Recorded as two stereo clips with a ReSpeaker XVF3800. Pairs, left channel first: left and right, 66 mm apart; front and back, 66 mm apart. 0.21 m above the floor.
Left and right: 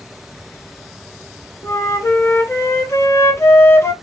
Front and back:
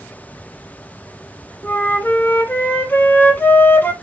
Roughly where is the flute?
Ahead left.